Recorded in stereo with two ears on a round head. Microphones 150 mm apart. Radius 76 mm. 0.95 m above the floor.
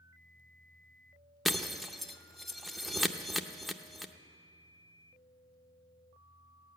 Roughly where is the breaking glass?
Centre.